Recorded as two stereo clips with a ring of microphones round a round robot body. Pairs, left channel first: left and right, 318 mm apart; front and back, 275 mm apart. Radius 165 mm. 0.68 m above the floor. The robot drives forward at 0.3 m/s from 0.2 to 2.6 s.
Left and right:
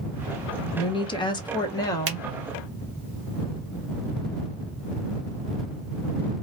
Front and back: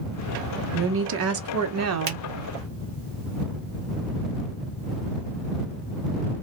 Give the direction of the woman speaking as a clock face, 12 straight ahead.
7 o'clock.